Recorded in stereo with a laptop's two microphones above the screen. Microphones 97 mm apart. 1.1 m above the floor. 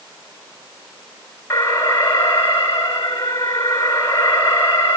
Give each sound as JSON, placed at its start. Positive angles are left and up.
{"t": 1.5, "sound": "an alarm", "side_deg": 25, "distance_m": 4.0}